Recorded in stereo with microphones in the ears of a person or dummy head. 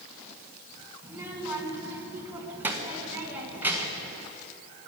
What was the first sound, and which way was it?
A child speaking, 5° right (ahead or behind).